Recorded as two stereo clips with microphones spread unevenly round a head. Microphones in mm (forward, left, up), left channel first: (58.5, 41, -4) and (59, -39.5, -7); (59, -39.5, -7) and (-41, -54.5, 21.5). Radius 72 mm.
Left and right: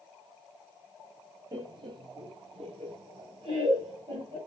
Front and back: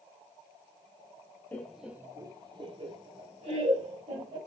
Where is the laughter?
55° right, 0.5 m; by 4.4 s 150° right, 1.8 m.